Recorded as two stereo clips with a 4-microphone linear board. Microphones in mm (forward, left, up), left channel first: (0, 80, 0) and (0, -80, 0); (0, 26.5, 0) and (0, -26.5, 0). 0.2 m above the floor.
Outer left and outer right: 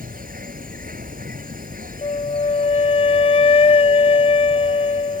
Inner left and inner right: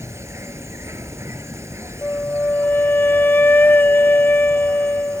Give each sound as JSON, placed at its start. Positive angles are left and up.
{"t": 0.0, "sound": "an insect", "side_deg": -60}
{"t": 2.0, "sound": "a flute", "side_deg": 40}